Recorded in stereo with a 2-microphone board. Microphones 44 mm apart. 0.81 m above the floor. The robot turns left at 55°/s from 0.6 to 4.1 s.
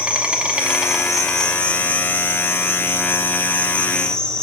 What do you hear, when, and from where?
0.0 s an insect: 150° right, 1.0 m; by 4.4 s 20° left, 1.0 m